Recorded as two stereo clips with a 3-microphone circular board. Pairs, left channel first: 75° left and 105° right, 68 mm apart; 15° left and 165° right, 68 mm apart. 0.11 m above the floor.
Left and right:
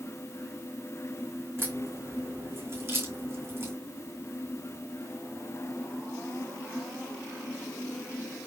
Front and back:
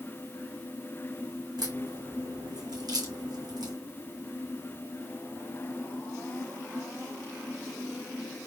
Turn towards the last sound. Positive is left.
turn(degrees=-155)